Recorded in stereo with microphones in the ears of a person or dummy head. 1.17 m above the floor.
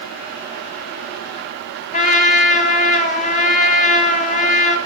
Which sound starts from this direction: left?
A trumpet, at 1.9 s.